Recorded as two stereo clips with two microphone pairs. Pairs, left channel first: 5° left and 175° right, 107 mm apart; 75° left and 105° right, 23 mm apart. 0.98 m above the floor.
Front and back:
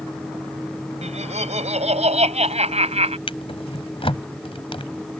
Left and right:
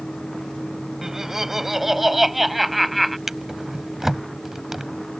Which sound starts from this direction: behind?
Laughter, at 1.0 s.